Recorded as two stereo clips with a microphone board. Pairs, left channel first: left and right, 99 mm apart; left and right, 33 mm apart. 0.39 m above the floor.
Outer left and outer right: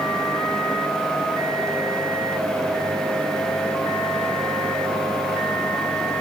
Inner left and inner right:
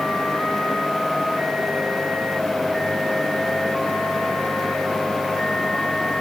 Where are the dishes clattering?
I don't hear dishes clattering.